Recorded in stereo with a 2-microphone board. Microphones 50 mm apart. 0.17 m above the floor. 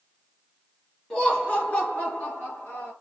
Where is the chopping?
I don't hear chopping.